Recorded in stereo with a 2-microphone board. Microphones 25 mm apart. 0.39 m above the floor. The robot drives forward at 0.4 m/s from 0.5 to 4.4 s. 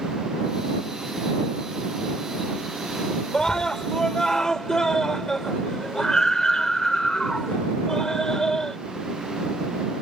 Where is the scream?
30° left (ahead or behind); by 8.8 s 25° left (ahead or behind).